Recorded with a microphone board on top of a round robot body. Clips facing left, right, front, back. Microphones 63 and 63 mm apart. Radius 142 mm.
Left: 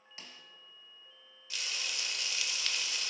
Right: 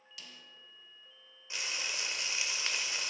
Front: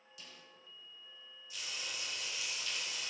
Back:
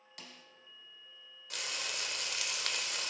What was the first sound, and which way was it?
A snare drum, 150° left.